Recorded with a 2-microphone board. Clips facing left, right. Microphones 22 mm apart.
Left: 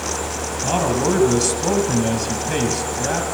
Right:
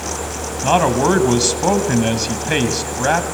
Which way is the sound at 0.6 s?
35° right (ahead or behind).